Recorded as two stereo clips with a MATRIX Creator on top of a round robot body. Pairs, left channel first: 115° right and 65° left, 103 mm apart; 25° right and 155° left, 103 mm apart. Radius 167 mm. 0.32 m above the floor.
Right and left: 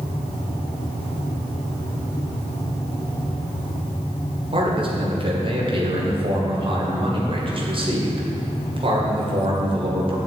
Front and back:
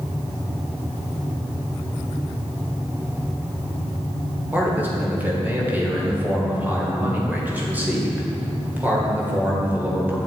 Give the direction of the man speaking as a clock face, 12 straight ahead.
9 o'clock.